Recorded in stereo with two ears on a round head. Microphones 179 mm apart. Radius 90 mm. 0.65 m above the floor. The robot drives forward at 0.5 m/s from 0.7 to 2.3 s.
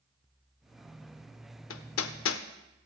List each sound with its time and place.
1.7 s hammering: 70° left (ahead or behind), 0.7 m; by 2.4 s 80° left, 0.6 m